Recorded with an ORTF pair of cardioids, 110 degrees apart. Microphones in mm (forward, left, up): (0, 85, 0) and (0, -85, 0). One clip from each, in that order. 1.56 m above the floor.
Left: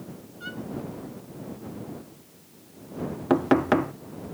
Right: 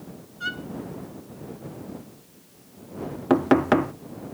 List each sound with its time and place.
0.4 s a violin: 50° right
3.3 s knocking: 10° right